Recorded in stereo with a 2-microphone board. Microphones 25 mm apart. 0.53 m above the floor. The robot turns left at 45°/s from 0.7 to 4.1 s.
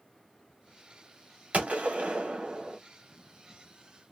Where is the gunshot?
90° right, 1.4 m; by 2.8 s 145° right, 1.4 m.